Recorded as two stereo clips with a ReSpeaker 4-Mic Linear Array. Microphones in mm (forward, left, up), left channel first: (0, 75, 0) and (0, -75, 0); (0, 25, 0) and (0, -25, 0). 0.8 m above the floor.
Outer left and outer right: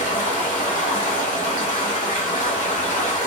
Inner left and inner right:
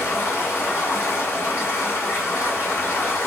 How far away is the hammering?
I don't hear hammering.